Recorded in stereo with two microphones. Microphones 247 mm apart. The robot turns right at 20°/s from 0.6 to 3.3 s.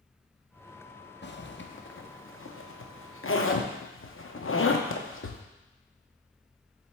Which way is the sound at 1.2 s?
50° left (ahead or behind).